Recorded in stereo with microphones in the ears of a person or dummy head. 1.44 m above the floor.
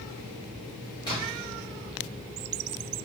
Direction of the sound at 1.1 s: 20° left (ahead or behind).